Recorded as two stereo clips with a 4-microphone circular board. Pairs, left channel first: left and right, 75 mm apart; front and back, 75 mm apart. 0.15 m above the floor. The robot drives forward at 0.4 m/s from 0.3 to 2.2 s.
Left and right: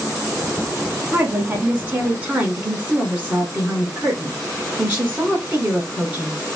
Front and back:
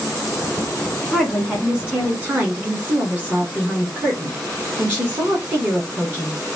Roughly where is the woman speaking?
Right.